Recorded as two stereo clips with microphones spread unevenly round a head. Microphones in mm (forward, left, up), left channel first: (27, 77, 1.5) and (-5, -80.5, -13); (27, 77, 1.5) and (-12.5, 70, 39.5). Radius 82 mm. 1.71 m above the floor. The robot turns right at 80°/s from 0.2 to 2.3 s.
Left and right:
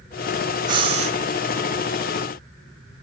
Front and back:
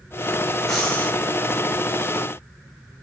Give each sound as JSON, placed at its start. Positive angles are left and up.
{"t": 0.7, "sound": "breathing", "azimuth_deg": -160, "distance_m": 1.9}